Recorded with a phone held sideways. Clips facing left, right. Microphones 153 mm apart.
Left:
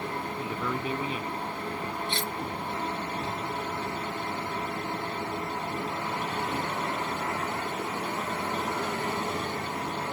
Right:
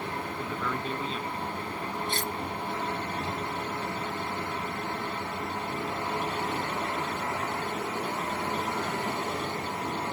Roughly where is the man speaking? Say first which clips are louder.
Left 1 dB; centre.